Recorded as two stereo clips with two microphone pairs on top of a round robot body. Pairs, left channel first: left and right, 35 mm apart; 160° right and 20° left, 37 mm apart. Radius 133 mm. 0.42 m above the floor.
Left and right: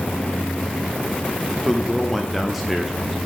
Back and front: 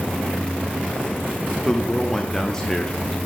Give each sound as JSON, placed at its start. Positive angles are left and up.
{"t": 1.6, "sound": "a man speaking", "azimuth_deg": 160, "distance_m": 0.9}